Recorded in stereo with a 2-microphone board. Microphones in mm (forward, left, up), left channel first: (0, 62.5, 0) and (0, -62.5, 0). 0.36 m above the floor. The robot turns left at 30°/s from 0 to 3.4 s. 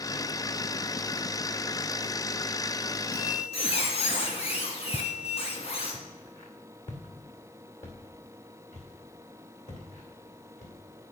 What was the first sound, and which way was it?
A squeak, 65° left (ahead or behind).